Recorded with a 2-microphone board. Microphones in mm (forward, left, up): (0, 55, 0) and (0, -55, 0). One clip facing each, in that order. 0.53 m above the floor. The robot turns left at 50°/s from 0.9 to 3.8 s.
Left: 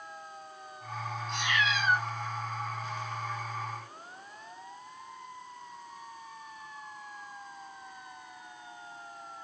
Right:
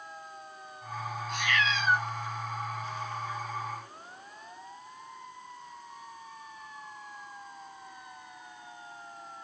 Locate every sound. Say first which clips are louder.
1.3 s a cat meowing: right 1 dB; 30° left, 1.6 m; by 2.0 s 10° right, 1.6 m